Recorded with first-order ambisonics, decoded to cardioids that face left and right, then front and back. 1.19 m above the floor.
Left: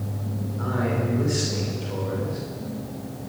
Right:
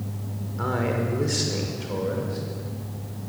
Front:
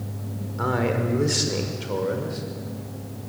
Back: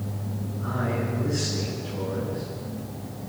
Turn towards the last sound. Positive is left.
turn(degrees=-10)